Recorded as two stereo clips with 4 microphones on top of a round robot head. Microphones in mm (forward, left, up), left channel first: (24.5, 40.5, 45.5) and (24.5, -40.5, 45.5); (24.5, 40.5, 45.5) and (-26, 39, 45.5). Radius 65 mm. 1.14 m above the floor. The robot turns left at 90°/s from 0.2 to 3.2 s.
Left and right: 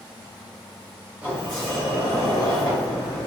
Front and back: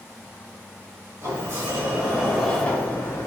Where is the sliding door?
155° right, 1.7 m; by 3.3 s 25° left, 1.7 m.